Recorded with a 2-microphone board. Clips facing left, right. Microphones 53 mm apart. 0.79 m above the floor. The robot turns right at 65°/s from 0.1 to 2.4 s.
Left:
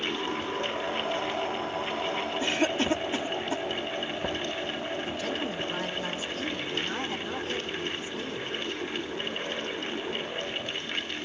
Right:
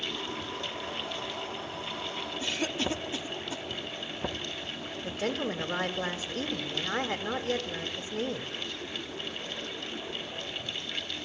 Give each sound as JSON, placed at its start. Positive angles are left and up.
{"t": 2.4, "sound": "a cough", "side_deg": 30, "distance_m": 2.0}
{"t": 5.0, "sound": "a woman speaking", "side_deg": -50, "distance_m": 3.0}